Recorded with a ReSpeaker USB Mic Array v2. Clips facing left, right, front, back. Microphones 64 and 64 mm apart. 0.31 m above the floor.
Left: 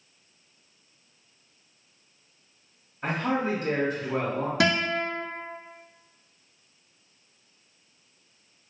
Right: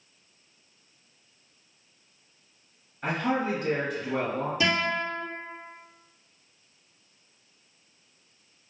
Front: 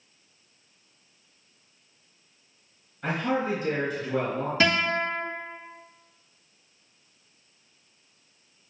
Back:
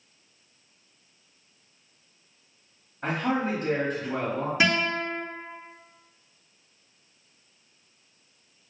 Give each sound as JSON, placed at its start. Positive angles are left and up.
{"t": 3.0, "sound": "a man speaking", "azimuth_deg": 175, "distance_m": 1.9}
{"t": 4.6, "sound": "a guitar", "azimuth_deg": 100, "distance_m": 1.2}